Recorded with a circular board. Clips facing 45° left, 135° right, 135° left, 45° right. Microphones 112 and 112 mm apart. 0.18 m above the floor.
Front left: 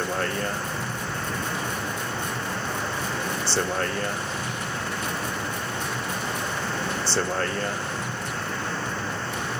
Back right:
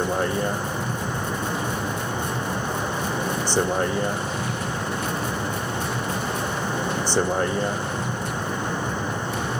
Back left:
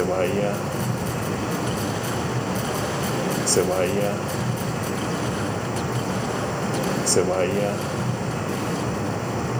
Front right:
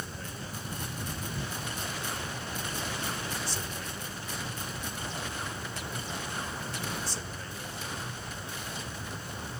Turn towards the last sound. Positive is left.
turn(degrees=150)